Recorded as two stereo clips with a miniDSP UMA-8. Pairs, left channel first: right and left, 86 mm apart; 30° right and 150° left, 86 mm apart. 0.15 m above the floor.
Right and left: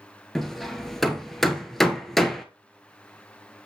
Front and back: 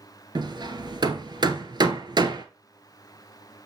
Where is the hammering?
Straight behind, 1.5 m.